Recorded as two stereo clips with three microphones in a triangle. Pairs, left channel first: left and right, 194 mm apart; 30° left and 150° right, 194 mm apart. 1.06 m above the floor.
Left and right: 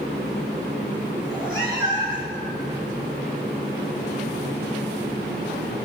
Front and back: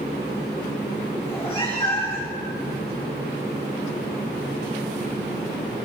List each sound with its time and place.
1.2 s a cat meowing: 95° left, 8 m